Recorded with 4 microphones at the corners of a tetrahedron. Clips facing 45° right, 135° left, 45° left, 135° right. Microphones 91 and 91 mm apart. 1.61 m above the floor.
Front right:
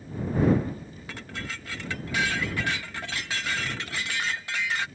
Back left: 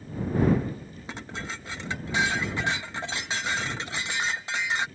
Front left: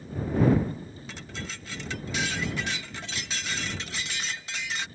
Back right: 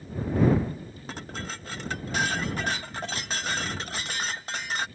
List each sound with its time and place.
1.1 s dishes clattering: 160° right